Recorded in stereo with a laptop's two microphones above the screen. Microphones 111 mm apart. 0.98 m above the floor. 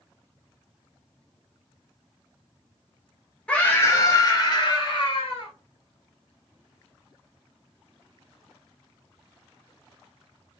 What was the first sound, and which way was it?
A scream, 10° left (ahead or behind).